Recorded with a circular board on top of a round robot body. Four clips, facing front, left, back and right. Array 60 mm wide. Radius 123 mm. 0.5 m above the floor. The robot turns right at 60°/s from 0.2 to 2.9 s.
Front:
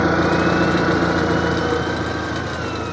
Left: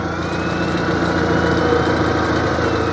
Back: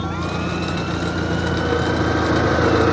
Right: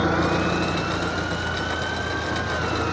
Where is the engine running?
10° right; by 2.9 s 155° left.